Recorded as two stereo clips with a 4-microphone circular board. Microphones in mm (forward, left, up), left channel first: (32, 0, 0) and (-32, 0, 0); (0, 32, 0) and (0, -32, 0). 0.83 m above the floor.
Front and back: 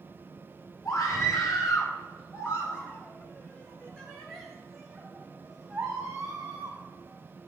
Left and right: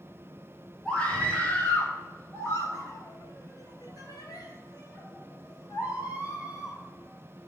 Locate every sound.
0.8 s a scream: 25° left, 4.5 m; by 7.5 s 125° left, 6 m